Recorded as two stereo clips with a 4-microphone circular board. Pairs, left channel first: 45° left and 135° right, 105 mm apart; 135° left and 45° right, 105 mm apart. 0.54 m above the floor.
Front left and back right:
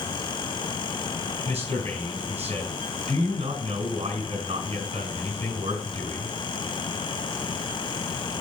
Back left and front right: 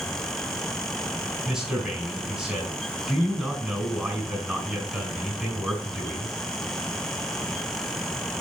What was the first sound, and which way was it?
A man speaking, 130° right.